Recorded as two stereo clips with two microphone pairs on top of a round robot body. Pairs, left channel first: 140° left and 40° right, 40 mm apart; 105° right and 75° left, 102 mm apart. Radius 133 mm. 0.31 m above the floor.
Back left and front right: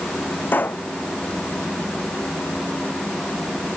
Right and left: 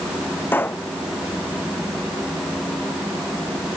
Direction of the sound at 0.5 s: Straight behind.